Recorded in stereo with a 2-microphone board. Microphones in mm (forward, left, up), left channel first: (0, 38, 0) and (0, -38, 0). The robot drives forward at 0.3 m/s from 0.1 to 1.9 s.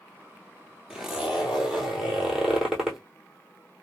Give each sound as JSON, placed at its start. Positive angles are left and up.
{"t": 0.9, "sound": "a zipper", "side_deg": -10, "distance_m": 0.9}